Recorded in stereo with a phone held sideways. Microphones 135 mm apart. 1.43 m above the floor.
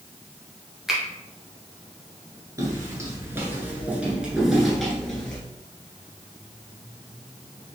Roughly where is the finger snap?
Centre.